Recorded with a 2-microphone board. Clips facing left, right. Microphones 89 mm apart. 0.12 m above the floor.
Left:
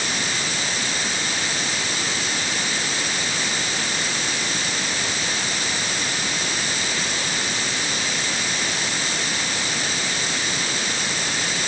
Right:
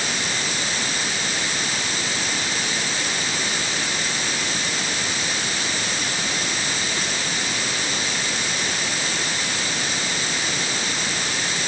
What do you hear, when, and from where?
Only background noise.